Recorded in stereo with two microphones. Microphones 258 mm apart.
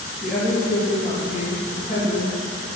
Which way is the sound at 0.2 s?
30° left (ahead or behind).